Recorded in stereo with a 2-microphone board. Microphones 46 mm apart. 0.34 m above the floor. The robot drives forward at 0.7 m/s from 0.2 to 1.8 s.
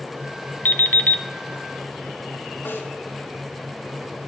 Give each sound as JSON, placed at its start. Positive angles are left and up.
{"t": 0.7, "sound": "an alarm clock", "side_deg": 45, "distance_m": 0.8}
{"t": 2.6, "sound": "a snare drum", "side_deg": 60, "distance_m": 3.5}